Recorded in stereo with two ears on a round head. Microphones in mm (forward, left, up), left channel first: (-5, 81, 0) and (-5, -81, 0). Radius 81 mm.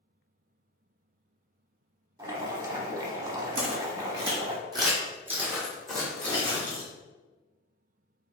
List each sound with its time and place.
2.2 s boiling: 20° right (ahead or behind), 0.7 m
3.5 s footsteps: 55° right (ahead or behind), 1.2 m; by 6.9 s 15° left (ahead or behind), 1.7 m